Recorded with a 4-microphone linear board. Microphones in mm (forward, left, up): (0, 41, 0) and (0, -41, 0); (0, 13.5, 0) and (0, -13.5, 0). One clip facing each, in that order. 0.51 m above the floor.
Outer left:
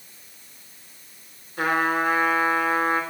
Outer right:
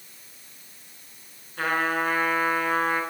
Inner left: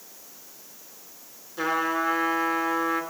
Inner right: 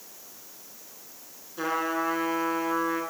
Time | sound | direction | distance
1.6 | a trumpet | 15° left (ahead or behind) | 3 m